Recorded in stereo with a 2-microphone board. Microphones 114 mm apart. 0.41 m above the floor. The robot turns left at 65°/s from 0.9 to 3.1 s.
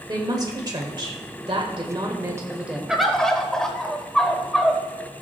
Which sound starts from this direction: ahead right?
A woman speaking, at 0.1 s.